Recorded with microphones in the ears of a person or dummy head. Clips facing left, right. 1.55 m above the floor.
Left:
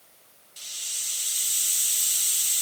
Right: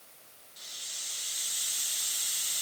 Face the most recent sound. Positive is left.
turn(degrees=40)  # may be behind; listen again after turning